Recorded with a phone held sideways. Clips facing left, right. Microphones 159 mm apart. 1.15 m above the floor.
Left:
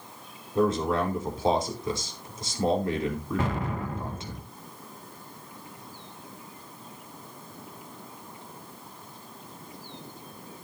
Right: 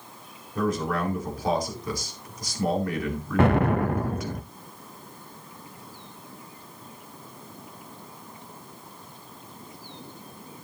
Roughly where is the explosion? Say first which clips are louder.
Right 14 dB; right.